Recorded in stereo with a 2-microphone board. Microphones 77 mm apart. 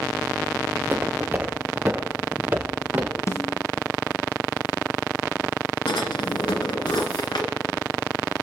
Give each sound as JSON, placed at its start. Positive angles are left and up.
{"t": 0.7, "sound": "footsteps", "side_deg": -30, "distance_m": 2.5}
{"t": 3.3, "sound": "a snare drum", "side_deg": 40, "distance_m": 0.9}
{"t": 5.9, "sound": "a drawer", "side_deg": 80, "distance_m": 2.0}